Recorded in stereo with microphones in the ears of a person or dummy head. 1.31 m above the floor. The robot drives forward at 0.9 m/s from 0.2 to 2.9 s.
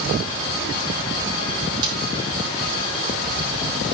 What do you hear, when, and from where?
1.8 s a snare drum: 25° right (ahead or behind), 7.5 m